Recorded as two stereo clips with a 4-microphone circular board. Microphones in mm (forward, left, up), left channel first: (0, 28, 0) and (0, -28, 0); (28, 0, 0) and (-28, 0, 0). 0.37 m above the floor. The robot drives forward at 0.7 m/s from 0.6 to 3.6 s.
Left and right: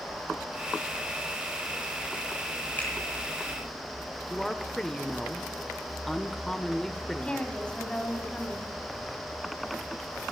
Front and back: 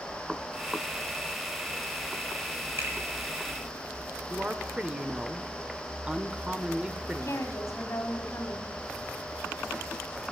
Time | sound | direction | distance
2.8 | a finger snap | 145° left | 9 m
4.3 | a woman speaking | 160° left | 0.8 m
7.2 | a woman speaking | 20° left | 2 m